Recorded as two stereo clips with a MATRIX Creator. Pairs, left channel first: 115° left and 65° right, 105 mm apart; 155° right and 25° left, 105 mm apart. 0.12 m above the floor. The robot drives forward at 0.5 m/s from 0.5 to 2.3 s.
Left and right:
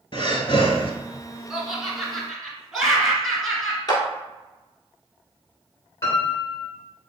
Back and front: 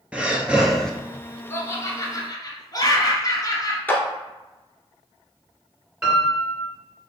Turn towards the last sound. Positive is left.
turn(degrees=85)